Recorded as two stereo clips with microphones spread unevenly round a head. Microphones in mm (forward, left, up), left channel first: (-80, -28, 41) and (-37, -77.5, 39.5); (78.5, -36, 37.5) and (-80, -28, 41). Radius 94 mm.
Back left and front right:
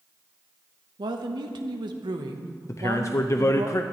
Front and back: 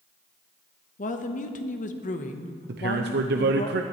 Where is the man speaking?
170° left, 0.7 m.